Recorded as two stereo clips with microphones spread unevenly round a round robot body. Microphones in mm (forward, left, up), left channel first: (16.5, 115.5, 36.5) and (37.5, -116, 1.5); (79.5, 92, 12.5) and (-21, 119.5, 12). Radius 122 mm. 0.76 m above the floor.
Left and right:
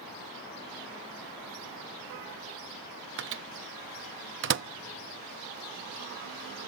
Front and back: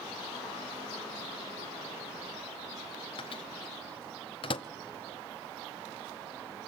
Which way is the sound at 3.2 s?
65° right.